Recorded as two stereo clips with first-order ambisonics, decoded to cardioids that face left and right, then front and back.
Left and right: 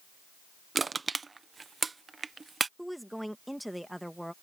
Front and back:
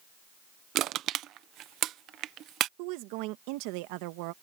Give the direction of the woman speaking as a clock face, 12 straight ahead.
6 o'clock.